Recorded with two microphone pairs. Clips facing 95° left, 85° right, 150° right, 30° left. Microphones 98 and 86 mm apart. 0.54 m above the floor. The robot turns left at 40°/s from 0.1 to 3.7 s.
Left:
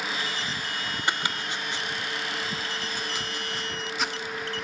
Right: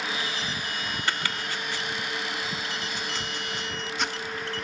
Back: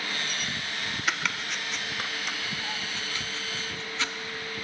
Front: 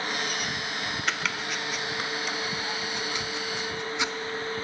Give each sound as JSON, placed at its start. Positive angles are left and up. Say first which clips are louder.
{"t": 1.1, "sound": "chopping", "louder": "left 2 dB, back 1 dB", "azimuth_deg": 120, "distance_m": 0.7}